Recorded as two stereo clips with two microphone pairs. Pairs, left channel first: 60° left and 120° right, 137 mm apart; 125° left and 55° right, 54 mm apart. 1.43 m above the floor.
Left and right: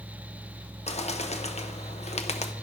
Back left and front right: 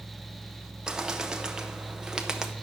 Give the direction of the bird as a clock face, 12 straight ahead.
11 o'clock.